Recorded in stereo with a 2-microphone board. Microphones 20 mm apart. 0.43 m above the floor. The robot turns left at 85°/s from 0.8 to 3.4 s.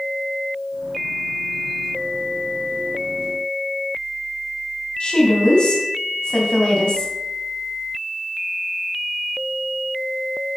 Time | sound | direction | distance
5.0 | a woman speaking | 45° left (ahead or behind) | 2.5 m